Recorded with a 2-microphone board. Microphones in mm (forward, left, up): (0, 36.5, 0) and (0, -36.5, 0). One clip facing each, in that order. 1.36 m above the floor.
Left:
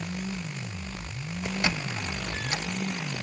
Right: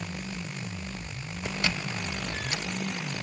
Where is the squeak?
25° left (ahead or behind), 1.1 m.